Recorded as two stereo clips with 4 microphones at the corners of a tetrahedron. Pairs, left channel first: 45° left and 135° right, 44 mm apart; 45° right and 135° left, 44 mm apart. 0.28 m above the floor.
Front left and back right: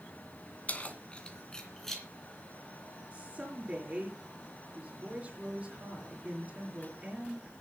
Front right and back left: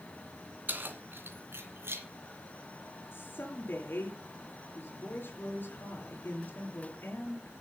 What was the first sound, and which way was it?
Keys jangling, 100° left.